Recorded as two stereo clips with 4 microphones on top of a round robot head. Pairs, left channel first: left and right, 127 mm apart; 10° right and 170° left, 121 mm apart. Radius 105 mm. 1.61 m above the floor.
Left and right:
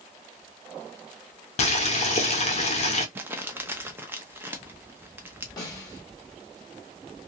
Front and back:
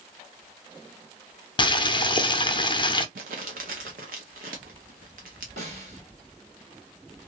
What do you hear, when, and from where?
1.6 s boiling: 45° left, 0.6 m
3.1 s crumpling: 160° right, 0.5 m
5.6 s a snare drum: 150° left, 1.9 m